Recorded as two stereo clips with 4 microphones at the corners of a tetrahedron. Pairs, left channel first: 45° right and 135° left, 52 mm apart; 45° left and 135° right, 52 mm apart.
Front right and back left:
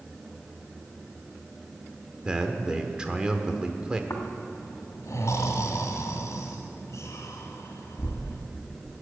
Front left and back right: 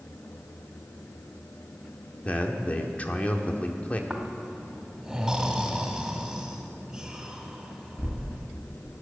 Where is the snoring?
55° right, 1.6 m.